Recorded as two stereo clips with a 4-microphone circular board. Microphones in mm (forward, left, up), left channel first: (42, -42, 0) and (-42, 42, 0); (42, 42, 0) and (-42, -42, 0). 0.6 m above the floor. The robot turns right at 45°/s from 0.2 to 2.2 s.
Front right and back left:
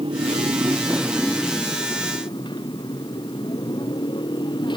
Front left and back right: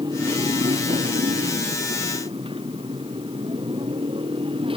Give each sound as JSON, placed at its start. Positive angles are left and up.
{"t": 0.0, "sound": "a motorcycle", "azimuth_deg": 175}